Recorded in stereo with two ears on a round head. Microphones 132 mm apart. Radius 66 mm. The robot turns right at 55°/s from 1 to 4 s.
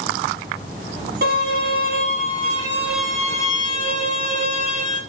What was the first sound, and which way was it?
A violin, 100° right.